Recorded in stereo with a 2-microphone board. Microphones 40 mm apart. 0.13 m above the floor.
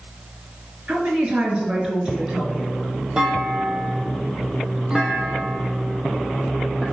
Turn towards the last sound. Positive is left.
turn(degrees=-15)  # may be behind; listen again after turning